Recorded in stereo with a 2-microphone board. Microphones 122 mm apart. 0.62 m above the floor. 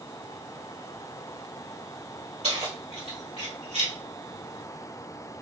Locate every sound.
2.4 s keys jangling: 70° right (ahead or behind), 2 m; by 3.9 s 65° right (ahead or behind), 1.5 m